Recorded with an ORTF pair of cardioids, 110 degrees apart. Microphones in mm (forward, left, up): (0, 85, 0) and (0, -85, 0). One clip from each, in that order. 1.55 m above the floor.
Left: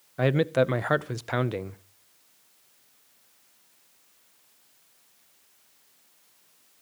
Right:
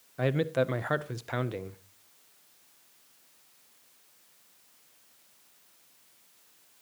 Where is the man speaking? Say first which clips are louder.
Left 5 dB; 25° left, 0.5 m.